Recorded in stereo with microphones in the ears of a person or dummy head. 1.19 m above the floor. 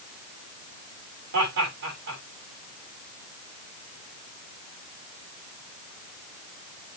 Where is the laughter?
70° right (ahead or behind), 7 m.